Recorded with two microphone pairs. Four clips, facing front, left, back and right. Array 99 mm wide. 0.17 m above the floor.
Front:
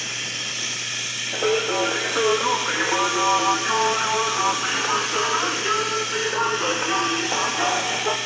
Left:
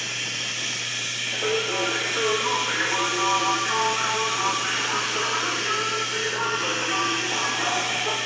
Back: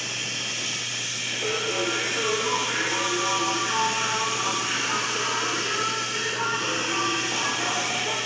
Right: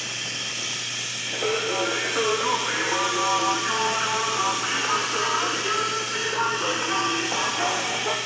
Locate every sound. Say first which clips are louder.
0.0 s running water: left 1 dB, front 1 dB; 30° left, 2.0 m
1.3 s singing: even, front 7 dB; 15° right, 0.9 m